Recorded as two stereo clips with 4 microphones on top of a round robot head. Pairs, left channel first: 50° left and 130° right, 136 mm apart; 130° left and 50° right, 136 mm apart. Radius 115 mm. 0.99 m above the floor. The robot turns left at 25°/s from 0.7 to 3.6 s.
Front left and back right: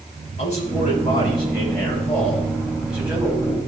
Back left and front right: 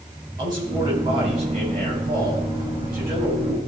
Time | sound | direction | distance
0.4 | a man speaking | 10° left | 6 m